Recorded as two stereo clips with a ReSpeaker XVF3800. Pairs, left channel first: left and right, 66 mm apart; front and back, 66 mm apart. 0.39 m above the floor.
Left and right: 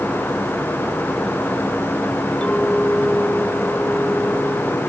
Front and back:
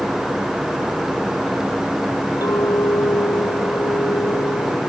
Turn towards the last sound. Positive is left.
turn(degrees=15)